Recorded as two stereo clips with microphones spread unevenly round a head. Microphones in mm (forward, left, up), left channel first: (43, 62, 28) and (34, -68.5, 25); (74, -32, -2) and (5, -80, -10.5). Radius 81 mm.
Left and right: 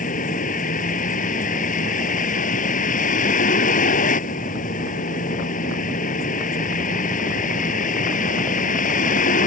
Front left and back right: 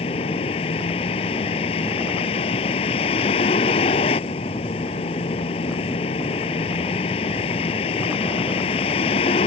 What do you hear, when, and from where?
0.0 s a vehicle: 65° left